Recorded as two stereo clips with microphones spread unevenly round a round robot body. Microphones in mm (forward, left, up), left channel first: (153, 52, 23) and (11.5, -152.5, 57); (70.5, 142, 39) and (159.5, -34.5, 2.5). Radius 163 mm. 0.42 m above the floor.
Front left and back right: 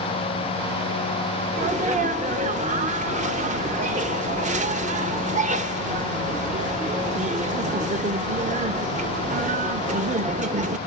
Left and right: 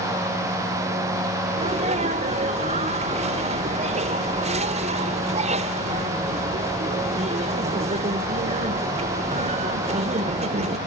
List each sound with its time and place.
1.6 s a sneeze: 70° right, 1.0 m